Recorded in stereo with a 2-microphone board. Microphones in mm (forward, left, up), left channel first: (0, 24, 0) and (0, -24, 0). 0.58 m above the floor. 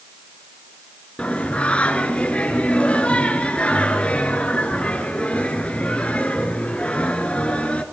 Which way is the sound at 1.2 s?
25° left (ahead or behind).